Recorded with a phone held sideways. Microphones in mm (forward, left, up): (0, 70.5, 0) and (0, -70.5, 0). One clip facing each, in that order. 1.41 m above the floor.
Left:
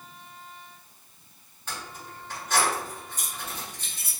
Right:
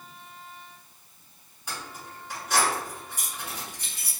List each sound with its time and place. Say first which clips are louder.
1.7 s keys jangling: even; 10° right (ahead or behind), 1.5 m